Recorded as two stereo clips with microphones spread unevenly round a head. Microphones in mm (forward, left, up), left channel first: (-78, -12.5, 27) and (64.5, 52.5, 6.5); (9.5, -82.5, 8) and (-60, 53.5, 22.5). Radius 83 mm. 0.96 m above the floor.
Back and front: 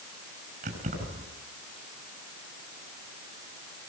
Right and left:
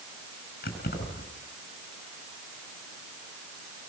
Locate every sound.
0.6 s keys jangling: 25° right, 8 m